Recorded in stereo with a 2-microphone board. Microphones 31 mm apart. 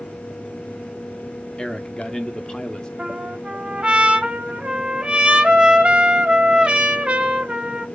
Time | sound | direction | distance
1.6 | a man speaking | 25° left (ahead or behind) | 0.7 m
3.0 | a trumpet | 35° right (ahead or behind) | 0.9 m